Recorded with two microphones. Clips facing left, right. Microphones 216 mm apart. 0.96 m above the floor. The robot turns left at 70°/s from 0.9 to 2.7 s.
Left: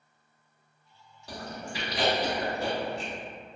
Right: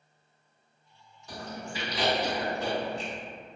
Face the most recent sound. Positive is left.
turn(degrees=10)  # may be behind; listen again after turning